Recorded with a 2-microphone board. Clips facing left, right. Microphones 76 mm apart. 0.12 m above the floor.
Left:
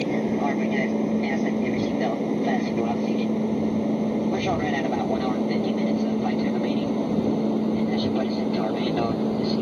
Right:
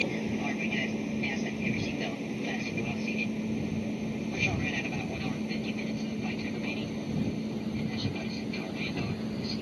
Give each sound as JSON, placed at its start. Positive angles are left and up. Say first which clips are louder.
{"t": 0.0, "sound": "an aircraft", "louder": "left 8 dB", "side_deg": 45}